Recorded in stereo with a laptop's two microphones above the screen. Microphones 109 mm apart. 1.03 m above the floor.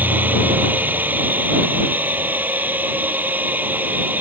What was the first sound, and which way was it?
A machine running, 15° right (ahead or behind).